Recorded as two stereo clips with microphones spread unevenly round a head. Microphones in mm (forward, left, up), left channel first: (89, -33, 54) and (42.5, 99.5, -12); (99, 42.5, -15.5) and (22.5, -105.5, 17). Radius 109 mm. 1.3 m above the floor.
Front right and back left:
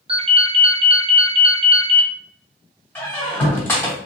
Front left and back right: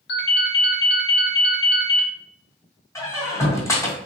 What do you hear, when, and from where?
0.1 s a ringtone: 50° left, 1.0 m
3.0 s a squeak: 15° right, 1.9 m